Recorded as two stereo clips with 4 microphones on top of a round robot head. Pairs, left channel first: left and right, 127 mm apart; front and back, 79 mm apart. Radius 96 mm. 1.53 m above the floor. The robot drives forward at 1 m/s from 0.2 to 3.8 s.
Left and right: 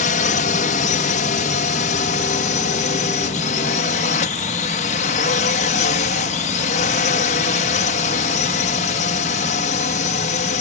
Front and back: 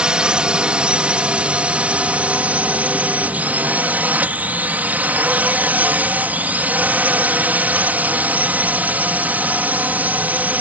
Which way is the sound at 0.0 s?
105° left.